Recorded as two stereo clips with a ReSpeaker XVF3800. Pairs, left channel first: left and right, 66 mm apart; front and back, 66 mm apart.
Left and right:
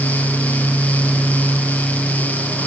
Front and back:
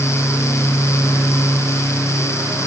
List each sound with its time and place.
Only background noise.